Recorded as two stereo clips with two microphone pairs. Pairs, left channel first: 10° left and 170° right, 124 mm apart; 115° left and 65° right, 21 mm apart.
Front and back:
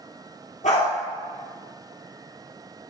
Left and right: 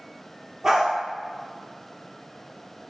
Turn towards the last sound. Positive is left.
turn(degrees=0)